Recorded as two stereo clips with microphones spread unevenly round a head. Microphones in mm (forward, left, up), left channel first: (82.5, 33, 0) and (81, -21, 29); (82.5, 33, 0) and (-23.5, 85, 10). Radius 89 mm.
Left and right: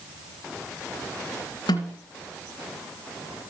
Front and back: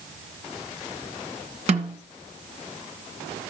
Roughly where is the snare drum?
Behind left.